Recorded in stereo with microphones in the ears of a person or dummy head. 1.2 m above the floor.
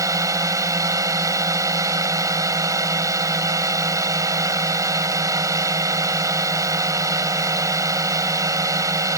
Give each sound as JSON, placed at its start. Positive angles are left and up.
{"t": 0.0, "sound": "a drone", "side_deg": -15}